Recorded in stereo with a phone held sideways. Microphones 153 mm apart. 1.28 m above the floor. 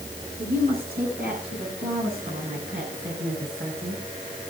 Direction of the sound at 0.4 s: 80° right.